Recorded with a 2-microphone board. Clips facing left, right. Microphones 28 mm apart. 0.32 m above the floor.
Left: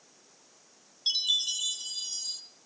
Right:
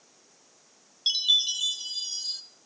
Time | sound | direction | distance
1.1 | a chime | 30° right (ahead or behind) | 1.2 m